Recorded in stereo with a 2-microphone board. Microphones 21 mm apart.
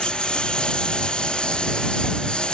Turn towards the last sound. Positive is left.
turn(degrees=45)  # may be behind; listen again after turning